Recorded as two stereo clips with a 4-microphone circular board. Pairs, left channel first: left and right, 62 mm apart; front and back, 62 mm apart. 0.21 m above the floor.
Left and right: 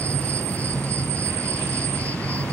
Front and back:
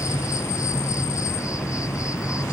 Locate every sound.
0.0 s an insect: 25° left